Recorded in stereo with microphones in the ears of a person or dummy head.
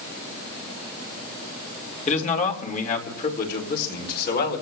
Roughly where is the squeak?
No squeak in this recording.